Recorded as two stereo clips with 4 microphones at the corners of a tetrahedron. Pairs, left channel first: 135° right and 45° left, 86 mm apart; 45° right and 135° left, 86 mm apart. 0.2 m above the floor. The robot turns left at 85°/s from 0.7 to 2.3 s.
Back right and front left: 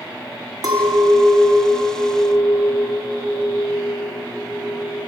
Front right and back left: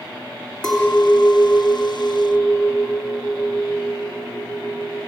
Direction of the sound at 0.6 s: 40° left.